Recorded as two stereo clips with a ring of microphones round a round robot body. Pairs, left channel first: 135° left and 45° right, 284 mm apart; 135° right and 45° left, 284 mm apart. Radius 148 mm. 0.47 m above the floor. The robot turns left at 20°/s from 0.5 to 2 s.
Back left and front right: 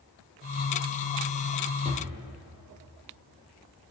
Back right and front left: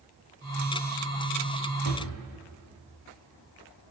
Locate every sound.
1.9 s a drawer: 115° right, 5 m; by 2.2 s 120° right, 5 m